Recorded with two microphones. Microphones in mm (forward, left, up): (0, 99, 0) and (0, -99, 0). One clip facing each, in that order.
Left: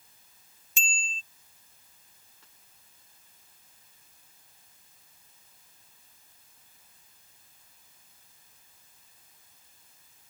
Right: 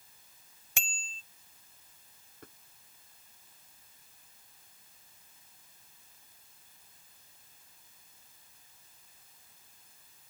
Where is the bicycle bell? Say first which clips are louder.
Left 4 dB; 80° right.